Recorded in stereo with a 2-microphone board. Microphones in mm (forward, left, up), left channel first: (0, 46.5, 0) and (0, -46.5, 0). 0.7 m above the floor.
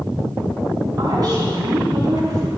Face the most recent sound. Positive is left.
turn(degrees=-45)  # may be behind; listen again after turning